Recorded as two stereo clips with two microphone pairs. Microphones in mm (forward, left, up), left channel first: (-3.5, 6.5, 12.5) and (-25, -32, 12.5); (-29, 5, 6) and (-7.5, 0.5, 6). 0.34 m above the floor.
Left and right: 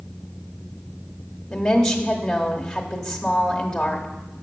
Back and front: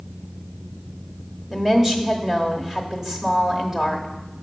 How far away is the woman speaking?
About 0.9 m.